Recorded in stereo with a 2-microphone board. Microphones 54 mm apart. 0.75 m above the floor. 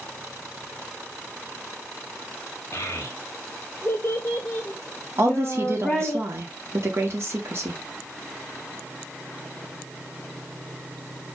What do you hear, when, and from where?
2.7 s a child speaking: 50° left (ahead or behind), 0.9 m; by 6.2 s 5° right (ahead or behind), 1.4 m
5.2 s a woman speaking: 50° right (ahead or behind), 1.1 m